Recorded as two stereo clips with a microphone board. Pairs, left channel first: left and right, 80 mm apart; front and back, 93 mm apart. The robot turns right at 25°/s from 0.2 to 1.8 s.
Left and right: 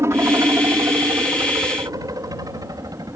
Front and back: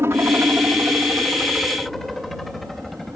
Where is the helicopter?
130° right; by 3.2 s 90° right.